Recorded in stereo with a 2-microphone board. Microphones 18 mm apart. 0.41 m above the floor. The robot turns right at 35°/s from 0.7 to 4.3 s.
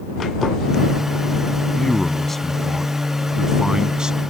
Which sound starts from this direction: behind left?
A man speaking, at 1.8 s.